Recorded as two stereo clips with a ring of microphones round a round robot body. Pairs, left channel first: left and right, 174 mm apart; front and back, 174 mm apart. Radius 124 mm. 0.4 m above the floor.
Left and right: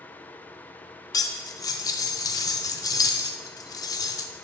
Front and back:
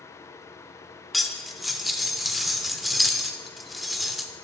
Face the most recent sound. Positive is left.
turn(degrees=90)